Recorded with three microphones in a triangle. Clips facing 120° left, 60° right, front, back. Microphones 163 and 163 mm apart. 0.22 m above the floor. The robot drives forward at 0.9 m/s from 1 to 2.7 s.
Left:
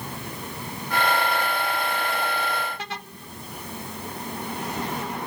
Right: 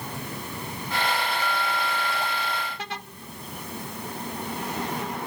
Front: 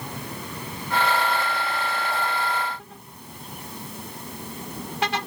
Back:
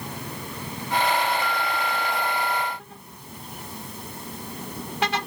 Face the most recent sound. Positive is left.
No sound to turn to.